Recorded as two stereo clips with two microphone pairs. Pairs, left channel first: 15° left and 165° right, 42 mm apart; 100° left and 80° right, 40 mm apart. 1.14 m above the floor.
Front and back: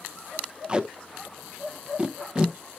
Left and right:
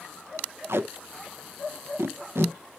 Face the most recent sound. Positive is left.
turn(degrees=-95)